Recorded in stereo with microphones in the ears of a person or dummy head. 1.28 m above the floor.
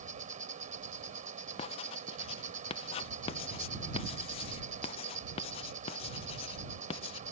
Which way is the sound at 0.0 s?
40° right (ahead or behind).